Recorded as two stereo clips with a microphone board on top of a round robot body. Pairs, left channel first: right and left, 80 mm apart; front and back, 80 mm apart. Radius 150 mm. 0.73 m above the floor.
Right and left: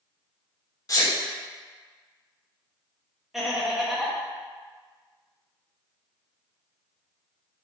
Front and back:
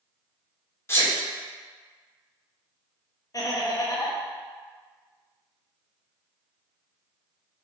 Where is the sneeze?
55° right, 1.3 m.